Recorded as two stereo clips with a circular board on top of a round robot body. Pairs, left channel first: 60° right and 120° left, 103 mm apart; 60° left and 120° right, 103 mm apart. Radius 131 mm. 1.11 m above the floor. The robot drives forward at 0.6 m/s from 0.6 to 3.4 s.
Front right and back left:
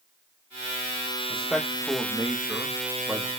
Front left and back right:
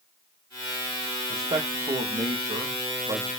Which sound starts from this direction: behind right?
A man speaking, at 1.3 s.